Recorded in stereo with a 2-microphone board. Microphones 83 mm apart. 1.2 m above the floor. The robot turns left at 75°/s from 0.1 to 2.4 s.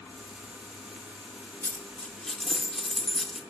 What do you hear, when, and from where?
1.6 s a dropped coin: 25° left (ahead or behind), 0.8 m; by 3.4 s 5° left (ahead or behind), 0.8 m